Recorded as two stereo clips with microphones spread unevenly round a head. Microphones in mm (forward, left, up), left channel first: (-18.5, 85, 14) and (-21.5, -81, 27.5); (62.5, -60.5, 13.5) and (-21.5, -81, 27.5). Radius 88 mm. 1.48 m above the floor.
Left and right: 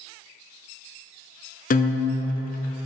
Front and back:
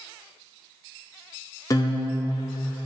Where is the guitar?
75° left, 0.5 m.